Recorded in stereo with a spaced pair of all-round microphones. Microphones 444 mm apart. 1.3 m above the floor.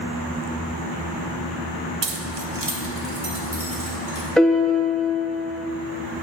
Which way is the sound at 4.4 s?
Centre (ahead or behind).